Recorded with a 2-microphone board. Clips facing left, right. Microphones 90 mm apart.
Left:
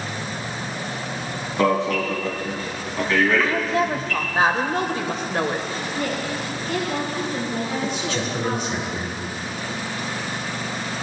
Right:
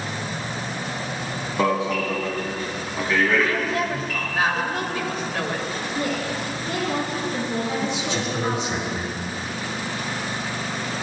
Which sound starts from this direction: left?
A woman speaking, at 3.4 s.